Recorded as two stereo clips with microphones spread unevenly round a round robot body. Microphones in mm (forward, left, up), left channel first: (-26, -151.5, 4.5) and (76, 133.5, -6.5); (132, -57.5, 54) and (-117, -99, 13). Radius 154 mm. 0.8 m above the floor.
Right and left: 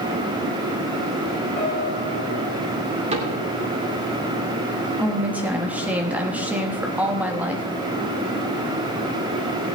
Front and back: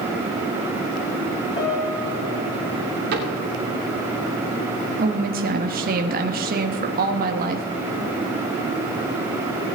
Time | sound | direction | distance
1.6 | a piano | 55° right | 4.5 m
3.1 | a cupboard door | 140° left | 3 m
5.0 | a woman speaking | 155° left | 1.2 m